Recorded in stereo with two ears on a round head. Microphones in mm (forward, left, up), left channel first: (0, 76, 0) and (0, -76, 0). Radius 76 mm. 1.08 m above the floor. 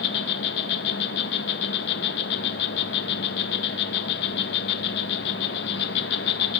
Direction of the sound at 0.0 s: 70° left (ahead or behind).